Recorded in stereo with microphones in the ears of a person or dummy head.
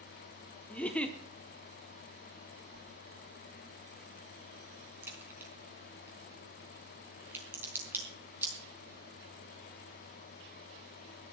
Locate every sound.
0.7 s a giggle: 5° left (ahead or behind), 0.9 m
2.7 s a whoosh: 70° right (ahead or behind), 2.5 m
5.0 s a crack: 15° right (ahead or behind), 4.5 m